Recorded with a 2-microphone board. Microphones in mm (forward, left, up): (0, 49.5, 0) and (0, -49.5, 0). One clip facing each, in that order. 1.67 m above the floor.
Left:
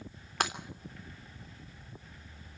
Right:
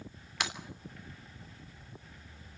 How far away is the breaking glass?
About 3 m.